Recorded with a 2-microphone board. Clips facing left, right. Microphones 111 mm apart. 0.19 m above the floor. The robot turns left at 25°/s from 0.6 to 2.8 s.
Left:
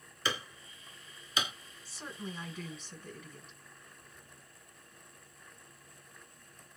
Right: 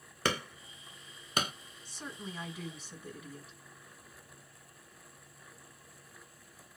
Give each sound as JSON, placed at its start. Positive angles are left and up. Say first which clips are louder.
{"t": 0.2, "sound": "hammering", "louder": "right 4 dB", "side_deg": -70, "distance_m": 0.7}
{"t": 1.9, "sound": "a woman speaking", "louder": "left 1 dB", "side_deg": 5, "distance_m": 1.5}